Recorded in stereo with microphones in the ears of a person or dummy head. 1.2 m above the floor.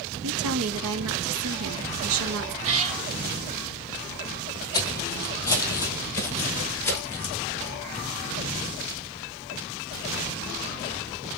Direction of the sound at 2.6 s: 40° right (ahead or behind).